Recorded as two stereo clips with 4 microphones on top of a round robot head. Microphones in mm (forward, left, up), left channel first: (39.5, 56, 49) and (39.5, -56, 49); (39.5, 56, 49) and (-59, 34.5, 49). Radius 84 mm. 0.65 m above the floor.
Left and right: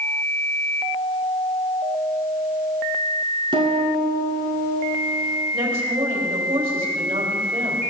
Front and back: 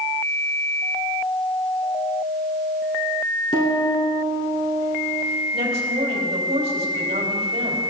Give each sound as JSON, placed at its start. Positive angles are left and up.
{"t": 3.5, "sound": "a piano", "azimuth_deg": -45, "distance_m": 3.5}
{"t": 5.5, "sound": "a woman speaking", "azimuth_deg": -140, "distance_m": 3.5}